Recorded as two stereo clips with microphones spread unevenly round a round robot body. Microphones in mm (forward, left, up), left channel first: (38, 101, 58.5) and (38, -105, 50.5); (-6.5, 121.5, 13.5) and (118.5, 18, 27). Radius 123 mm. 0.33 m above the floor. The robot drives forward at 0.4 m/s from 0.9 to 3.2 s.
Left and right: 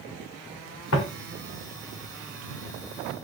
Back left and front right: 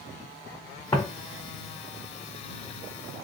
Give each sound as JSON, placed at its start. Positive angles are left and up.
{"t": 0.9, "sound": "footsteps", "azimuth_deg": 75, "distance_m": 1.3}